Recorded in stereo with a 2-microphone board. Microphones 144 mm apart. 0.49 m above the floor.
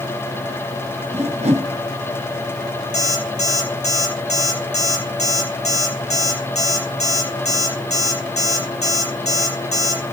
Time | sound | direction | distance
1.1 | a whoosh | 45° right (ahead or behind) | 2.5 m
2.9 | an alarm clock | 50° left (ahead or behind) | 5.5 m